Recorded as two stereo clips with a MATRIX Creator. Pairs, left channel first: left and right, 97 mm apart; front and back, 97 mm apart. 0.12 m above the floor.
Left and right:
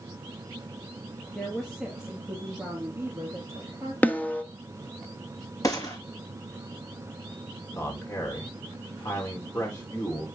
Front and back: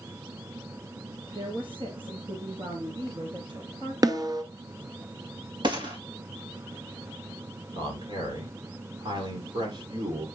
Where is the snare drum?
155° left, 1.0 m.